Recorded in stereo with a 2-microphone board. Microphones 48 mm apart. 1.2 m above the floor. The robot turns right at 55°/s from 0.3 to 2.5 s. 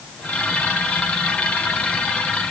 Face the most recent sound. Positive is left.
No sound to turn to.